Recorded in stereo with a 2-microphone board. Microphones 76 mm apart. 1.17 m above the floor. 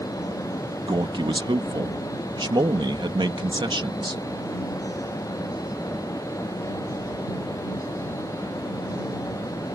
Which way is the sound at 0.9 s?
80° right.